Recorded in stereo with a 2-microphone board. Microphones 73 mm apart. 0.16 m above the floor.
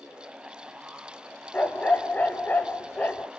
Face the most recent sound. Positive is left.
turn(degrees=20)  # may be behind; listen again after turning